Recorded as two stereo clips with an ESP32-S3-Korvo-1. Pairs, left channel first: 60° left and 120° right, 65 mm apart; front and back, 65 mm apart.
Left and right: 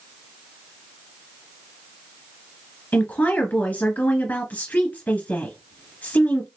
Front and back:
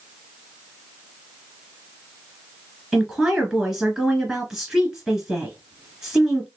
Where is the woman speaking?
100° left, 1.6 m.